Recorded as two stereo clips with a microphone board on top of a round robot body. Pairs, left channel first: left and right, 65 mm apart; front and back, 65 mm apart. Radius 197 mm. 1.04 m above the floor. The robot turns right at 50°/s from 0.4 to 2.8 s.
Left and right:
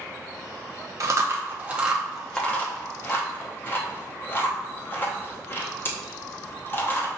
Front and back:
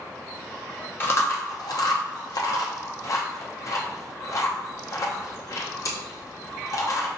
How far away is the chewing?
About 0.9 m.